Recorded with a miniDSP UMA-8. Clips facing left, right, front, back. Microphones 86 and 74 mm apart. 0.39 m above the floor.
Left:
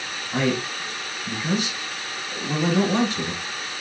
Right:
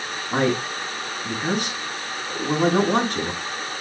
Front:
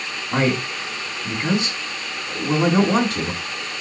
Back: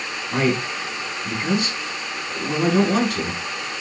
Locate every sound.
0.3 s a man speaking: 60° right, 4 m